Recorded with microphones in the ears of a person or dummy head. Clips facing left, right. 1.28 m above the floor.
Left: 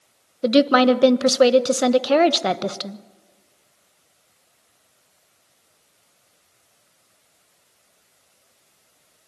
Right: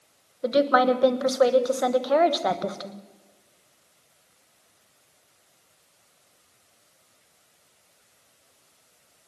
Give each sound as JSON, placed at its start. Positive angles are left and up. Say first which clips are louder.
{"t": 0.4, "sound": "a woman speaking", "louder": "left 5 dB", "side_deg": 35, "distance_m": 1.1}